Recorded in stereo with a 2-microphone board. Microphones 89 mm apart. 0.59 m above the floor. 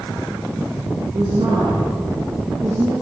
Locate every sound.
1.1 s a woman speaking: 70° right (ahead or behind), 9.5 m